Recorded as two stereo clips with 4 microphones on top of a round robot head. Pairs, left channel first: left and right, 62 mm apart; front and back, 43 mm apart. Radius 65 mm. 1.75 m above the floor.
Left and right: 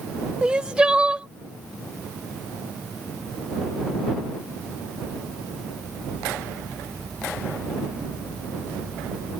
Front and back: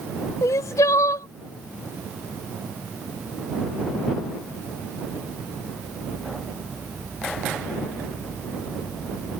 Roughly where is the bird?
No bird in this recording.